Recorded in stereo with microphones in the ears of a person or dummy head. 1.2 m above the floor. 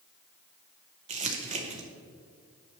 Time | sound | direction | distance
1.1 | crumpling | 40° right (ahead or behind) | 0.9 m